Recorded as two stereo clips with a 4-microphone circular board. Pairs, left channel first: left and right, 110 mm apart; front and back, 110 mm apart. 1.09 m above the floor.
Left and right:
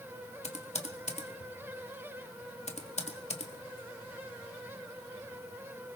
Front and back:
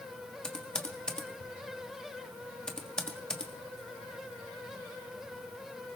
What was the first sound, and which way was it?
Typing on a keyboard, 85° left.